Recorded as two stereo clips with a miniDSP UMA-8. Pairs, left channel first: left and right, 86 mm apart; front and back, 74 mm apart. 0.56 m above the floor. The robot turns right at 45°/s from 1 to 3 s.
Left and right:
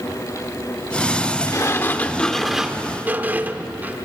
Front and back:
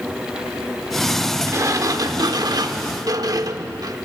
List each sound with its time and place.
1.5 s a sliding door: 135° left, 0.8 m; by 4.0 s 155° right, 0.8 m